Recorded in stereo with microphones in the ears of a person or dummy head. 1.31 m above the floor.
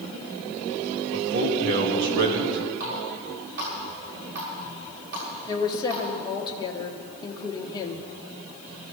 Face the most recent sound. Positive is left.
turn(degrees=25)  # may be behind; listen again after turning